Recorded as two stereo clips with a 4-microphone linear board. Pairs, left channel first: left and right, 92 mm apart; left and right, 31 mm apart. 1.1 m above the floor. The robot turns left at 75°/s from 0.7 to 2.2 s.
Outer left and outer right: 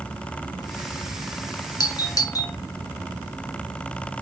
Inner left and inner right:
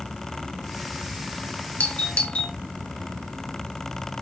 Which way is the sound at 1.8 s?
45° left (ahead or behind).